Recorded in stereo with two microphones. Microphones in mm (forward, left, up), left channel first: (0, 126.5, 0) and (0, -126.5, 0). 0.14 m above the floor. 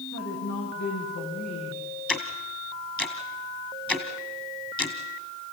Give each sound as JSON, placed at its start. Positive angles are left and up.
{"t": 0.1, "sound": "a woman speaking", "side_deg": 80, "distance_m": 7.5}
{"t": 2.1, "sound": "ticking", "side_deg": 5, "distance_m": 1.9}